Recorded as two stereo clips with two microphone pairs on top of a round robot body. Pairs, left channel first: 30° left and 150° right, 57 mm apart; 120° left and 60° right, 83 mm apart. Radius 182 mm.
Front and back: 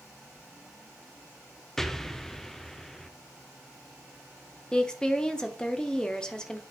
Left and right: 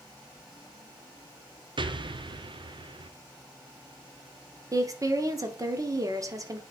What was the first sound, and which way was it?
An explosion, 50° right.